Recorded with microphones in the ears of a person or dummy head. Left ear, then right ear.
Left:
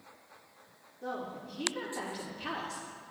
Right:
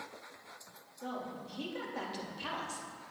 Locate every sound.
1.0 s a woman speaking: 70° right (ahead or behind), 3.5 m